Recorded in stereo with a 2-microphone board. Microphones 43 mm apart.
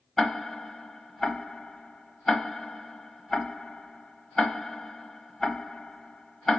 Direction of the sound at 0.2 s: 10° left (ahead or behind).